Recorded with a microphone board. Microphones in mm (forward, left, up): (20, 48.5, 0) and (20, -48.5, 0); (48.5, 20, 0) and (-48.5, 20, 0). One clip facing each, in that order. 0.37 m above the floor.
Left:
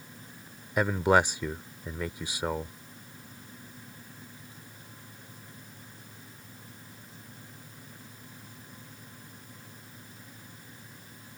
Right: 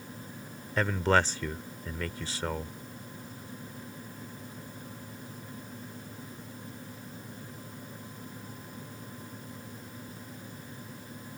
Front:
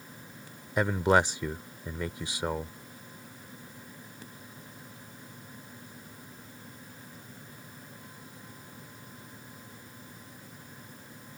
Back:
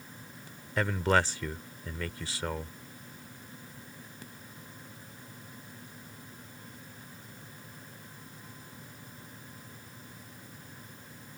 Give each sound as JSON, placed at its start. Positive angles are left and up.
{"t": 0.8, "sound": "a man speaking", "azimuth_deg": 40}